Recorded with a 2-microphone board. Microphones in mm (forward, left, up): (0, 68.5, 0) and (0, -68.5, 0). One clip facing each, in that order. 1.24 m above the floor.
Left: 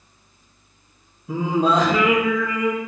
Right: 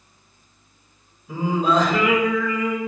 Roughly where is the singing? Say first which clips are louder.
Left 1 dB; left.